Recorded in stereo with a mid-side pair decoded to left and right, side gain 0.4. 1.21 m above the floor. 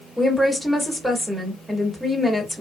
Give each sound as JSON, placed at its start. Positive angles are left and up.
{"t": 0.2, "sound": "a woman speaking", "azimuth_deg": 0, "distance_m": 2.0}